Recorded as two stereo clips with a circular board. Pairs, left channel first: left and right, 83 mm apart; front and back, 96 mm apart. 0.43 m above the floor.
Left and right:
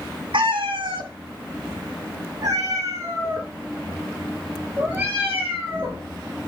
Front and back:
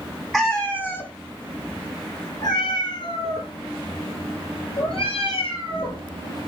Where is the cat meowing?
85° right, 1.2 m; by 6.0 s 25° right, 4.5 m.